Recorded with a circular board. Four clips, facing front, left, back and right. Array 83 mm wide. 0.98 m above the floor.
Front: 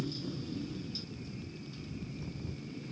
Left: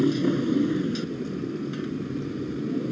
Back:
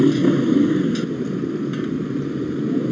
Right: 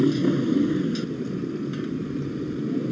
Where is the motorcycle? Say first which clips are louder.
Right 2 dB, back 24 dB; straight behind.